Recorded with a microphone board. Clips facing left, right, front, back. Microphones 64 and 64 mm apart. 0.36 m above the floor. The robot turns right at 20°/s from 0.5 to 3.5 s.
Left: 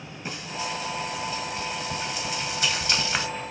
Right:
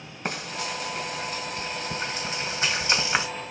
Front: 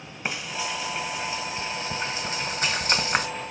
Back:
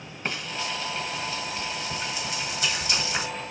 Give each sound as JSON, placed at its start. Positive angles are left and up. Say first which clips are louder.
{"t": 0.2, "sound": "frying", "louder": "right 1 dB, front 1 dB", "azimuth_deg": -75, "distance_m": 2.0}